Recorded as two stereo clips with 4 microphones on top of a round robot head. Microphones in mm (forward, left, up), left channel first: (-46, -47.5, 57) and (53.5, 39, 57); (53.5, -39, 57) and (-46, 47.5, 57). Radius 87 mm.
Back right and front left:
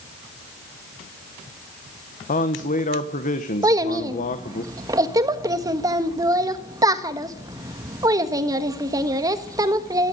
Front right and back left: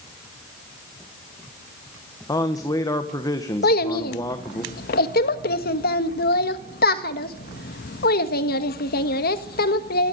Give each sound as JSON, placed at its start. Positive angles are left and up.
{"t": 2.3, "sound": "a man speaking", "azimuth_deg": -110, "distance_m": 1.3}
{"t": 3.6, "sound": "a child speaking", "azimuth_deg": -25, "distance_m": 1.4}